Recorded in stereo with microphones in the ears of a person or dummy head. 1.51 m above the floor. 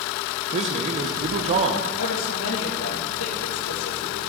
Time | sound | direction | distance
0.5 | a man speaking | 40° right (ahead or behind) | 0.9 m
2.0 | a woman speaking | 80° left | 2 m